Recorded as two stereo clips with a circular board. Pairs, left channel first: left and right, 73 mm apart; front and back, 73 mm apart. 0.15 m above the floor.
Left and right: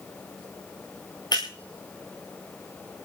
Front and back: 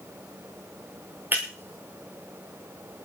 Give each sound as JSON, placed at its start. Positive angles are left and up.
{"t": 1.3, "sound": "breaking glass", "azimuth_deg": 115, "distance_m": 7.0}